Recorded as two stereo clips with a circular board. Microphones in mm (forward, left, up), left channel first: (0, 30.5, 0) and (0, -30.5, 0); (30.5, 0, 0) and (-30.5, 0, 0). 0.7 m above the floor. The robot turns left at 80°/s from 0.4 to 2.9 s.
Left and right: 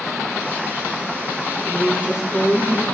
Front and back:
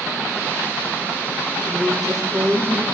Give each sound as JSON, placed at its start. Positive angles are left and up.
{"t": 1.6, "sound": "a woman speaking", "azimuth_deg": -130, "distance_m": 6.0}